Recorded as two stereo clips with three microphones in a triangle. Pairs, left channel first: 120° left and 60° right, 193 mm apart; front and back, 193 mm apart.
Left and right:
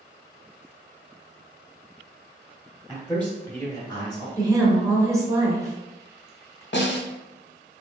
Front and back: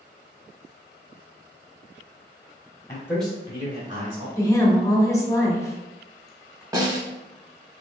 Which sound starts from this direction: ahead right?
A woman speaking, at 4.4 s.